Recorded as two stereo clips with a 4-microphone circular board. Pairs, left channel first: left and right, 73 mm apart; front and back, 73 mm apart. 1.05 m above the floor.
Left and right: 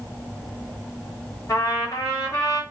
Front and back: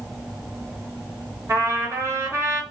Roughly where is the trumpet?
Behind left.